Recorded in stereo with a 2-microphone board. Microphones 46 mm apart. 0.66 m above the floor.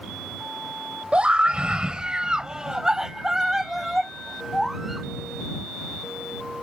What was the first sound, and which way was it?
A scream, 25° right (ahead or behind).